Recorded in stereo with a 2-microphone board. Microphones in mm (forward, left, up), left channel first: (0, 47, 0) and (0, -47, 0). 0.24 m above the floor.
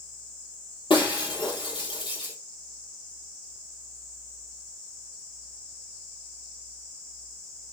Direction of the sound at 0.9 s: 60° left (ahead or behind).